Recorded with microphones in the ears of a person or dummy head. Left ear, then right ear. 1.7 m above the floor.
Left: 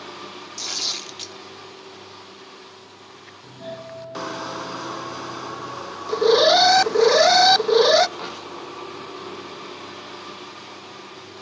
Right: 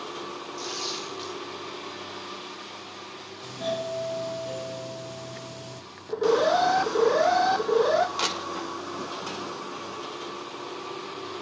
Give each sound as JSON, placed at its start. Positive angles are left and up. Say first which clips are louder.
{"t": 0.6, "sound": "tearing paper", "louder": "left 7 dB", "side_deg": 30, "distance_m": 5.0}
{"t": 3.4, "sound": "a doorbell", "louder": "right 6 dB", "side_deg": -75, "distance_m": 1.0}
{"t": 6.1, "sound": "an alarm", "louder": "left 7 dB", "side_deg": 65, "distance_m": 0.6}
{"t": 8.2, "sound": "crushing", "louder": "right 4 dB", "side_deg": -80, "distance_m": 7.5}